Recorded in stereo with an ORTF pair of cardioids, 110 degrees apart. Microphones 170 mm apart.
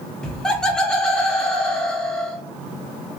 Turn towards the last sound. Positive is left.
turn(degrees=5)